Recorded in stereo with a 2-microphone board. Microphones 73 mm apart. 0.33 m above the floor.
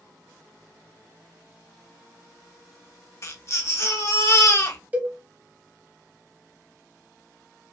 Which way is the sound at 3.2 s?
40° left (ahead or behind).